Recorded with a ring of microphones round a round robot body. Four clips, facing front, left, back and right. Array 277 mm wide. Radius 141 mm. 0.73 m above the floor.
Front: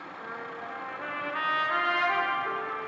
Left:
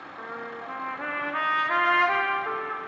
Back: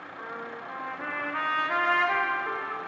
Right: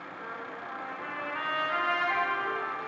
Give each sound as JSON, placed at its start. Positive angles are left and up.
{"t": 0.2, "sound": "a trumpet", "azimuth_deg": 105, "distance_m": 0.6}